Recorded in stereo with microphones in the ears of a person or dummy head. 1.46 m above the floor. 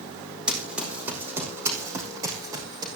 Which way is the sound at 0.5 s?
Centre (ahead or behind).